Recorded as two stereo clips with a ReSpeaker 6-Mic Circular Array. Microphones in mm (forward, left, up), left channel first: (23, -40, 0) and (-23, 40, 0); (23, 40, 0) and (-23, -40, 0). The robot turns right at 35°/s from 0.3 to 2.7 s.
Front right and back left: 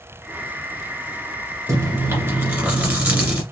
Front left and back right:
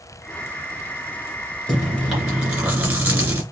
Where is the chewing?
145° left, 2 m; by 3.4 s straight behind, 2 m.